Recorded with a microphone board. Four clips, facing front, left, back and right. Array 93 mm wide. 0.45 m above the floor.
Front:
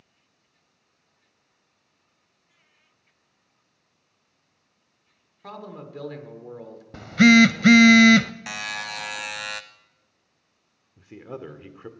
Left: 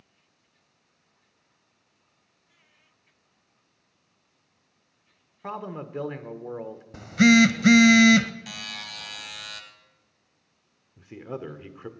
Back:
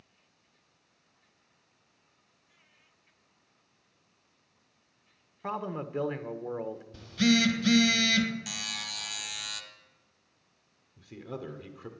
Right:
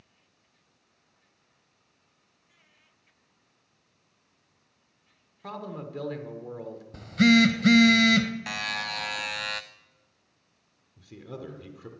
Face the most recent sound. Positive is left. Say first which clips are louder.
# left 5 dB, front 3 dB
turn(degrees=55)